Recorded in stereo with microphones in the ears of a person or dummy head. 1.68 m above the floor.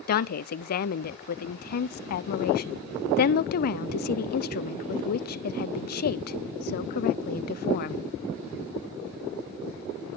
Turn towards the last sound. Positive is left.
turn(degrees=55)  # may be behind; listen again after turning